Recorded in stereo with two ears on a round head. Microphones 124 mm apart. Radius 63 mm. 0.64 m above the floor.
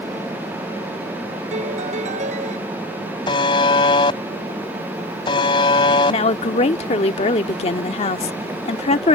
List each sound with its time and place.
1.5 s a piano: 55° right (ahead or behind)
3.3 s a buzzer: 30° left (ahead or behind)
6.1 s a woman speaking: 45° left (ahead or behind)